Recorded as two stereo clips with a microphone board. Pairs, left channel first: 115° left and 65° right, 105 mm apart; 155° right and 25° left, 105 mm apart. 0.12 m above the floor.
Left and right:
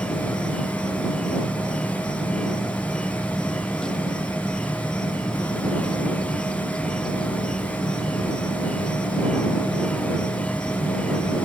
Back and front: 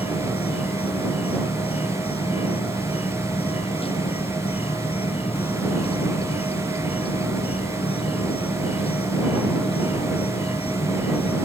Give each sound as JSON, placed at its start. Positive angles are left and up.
{"t": 0.0, "sound": "an insect", "azimuth_deg": -165}